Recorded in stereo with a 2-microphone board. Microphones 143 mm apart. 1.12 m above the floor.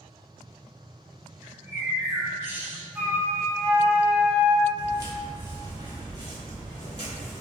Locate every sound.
1.4 s a bird: 15° right (ahead or behind), 0.7 m
3.0 s a flute: 10° right (ahead or behind), 0.6 m
4.8 s footsteps: 20° right (ahead or behind), 1.2 m; by 7.4 s 35° right (ahead or behind), 1.7 m